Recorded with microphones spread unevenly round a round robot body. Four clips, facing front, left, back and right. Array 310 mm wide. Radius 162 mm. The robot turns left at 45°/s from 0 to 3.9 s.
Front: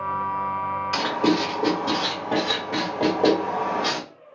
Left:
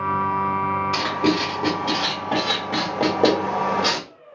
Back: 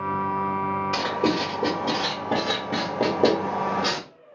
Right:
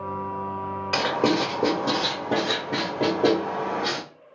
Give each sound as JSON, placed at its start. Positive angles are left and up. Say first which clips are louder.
{"t": 0.9, "sound": "writing", "louder": "right 4 dB, front 5 dB", "azimuth_deg": -100, "distance_m": 1.7}